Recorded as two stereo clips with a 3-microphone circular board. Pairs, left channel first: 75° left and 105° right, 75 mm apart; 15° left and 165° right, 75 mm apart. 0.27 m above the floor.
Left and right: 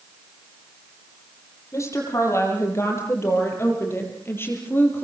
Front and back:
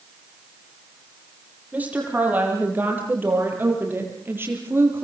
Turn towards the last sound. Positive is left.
turn(degrees=140)